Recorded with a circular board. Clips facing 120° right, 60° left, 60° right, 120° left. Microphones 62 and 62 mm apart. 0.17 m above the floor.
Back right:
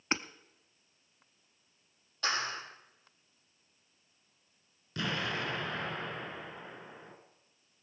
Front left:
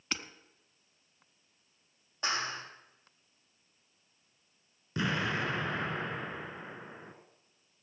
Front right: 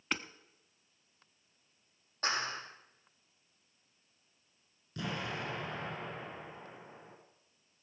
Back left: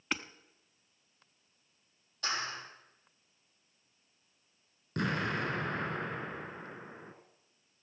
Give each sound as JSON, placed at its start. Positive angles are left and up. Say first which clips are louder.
{"t": 0.1, "sound": "hammering", "louder": "back right 5 dB, even", "azimuth_deg": -155, "distance_m": 0.6}
{"t": 2.2, "sound": "a clap", "louder": "even, front right 1 dB", "azimuth_deg": -10, "distance_m": 5.5}
{"t": 5.0, "sound": "an explosion", "louder": "front left 3 dB, back left 6 dB", "azimuth_deg": 120, "distance_m": 1.8}